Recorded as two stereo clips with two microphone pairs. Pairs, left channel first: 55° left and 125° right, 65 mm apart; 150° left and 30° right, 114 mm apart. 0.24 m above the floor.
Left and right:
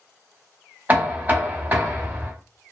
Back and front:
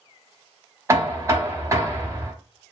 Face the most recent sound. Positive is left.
turn(degrees=-80)